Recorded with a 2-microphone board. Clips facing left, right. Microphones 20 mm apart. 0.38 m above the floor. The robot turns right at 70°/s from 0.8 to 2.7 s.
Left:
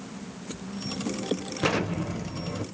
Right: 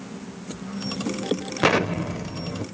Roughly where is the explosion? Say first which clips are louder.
Right 6 dB; ahead right.